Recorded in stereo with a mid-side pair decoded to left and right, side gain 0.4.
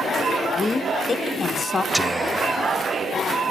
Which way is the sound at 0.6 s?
35° left.